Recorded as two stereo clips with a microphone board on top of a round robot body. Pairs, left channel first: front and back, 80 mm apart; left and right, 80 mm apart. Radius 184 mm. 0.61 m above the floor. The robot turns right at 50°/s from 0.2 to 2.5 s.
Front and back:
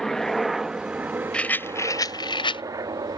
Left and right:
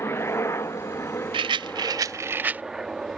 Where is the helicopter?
80° left; by 3.2 s 175° right.